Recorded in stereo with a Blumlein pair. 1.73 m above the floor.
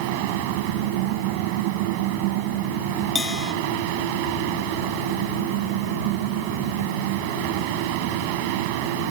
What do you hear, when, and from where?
0.0 s a fan: 45° right
3.1 s a bell: 15° left